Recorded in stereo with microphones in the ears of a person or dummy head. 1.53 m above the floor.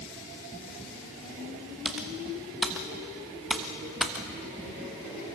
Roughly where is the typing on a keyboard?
Centre.